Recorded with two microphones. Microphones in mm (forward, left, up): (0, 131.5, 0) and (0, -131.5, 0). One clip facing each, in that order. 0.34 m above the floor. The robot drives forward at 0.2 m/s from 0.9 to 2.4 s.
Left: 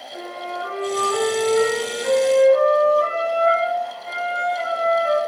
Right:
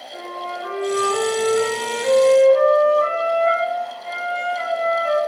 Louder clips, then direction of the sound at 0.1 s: Left 1 dB; 70° left (ahead or behind).